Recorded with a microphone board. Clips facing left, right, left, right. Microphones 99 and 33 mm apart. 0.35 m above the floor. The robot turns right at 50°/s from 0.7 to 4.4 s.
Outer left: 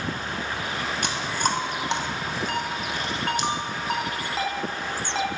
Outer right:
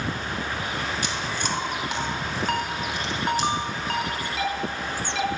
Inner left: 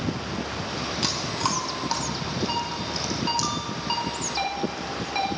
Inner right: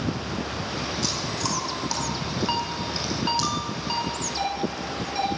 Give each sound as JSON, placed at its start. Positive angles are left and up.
{"t": 1.0, "sound": "chewing", "side_deg": 55, "distance_m": 2.5}
{"t": 2.5, "sound": "a ringtone", "side_deg": -55, "distance_m": 3.5}